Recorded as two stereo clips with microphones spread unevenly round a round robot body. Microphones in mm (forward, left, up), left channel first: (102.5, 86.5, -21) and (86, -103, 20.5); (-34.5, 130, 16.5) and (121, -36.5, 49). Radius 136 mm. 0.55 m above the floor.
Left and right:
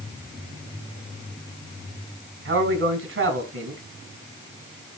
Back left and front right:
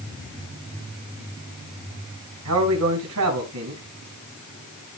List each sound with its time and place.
2.5 s a man speaking: 80° right, 4.5 m